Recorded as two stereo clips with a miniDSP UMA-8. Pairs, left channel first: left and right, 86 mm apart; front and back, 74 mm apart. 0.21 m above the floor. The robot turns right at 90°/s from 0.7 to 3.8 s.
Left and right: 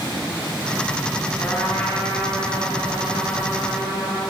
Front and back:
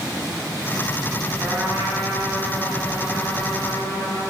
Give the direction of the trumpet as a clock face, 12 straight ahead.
8 o'clock.